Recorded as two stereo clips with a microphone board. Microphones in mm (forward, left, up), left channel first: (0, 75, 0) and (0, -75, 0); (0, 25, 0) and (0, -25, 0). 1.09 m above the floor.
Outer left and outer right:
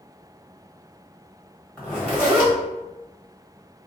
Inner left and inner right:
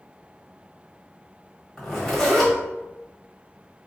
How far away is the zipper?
About 1.3 m.